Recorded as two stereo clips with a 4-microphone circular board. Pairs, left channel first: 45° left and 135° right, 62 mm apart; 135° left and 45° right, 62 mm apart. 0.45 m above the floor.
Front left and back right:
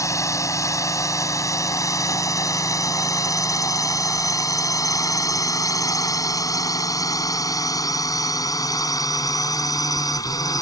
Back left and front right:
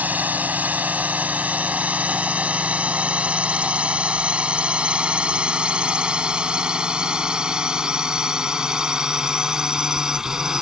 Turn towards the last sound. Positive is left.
turn(degrees=35)